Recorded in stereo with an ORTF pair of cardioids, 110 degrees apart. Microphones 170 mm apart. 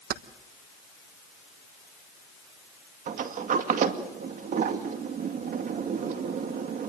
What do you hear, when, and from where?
0.1 s keys jangling: 65° right, 1.2 m
3.1 s a sliding door: 50° right, 2 m